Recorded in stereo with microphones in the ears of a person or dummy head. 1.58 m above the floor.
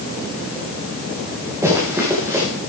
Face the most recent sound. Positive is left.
turn(degrees=-20)  # may be behind; listen again after turning